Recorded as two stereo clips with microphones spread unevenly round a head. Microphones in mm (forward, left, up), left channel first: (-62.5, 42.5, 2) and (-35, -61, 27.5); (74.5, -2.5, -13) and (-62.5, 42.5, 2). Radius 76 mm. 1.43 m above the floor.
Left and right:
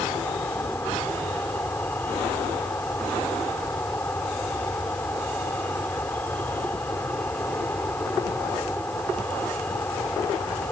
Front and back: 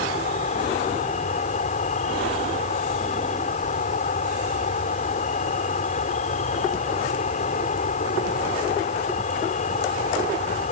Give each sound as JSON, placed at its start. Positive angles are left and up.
{"t": 0.0, "sound": "an insect", "azimuth_deg": 25}